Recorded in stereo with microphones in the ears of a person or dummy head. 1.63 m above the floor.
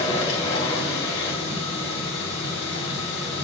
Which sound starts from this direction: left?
A machine running, at 0.0 s.